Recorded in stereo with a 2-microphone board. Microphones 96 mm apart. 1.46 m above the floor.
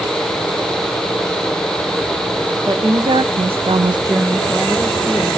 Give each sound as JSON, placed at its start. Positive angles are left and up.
{"t": 2.6, "sound": "a woman speaking", "side_deg": -50, "distance_m": 1.6}